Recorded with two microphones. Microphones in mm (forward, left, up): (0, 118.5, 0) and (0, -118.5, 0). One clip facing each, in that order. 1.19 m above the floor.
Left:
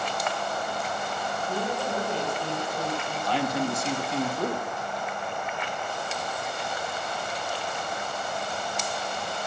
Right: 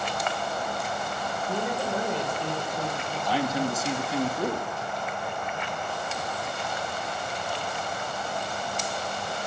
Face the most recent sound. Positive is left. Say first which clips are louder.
# right 1 dB
turn(degrees=-5)  # may be behind; listen again after turning